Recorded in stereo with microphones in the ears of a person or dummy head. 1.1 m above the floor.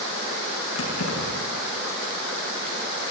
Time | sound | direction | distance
0.8 | keys jangling | 80° left | 8 m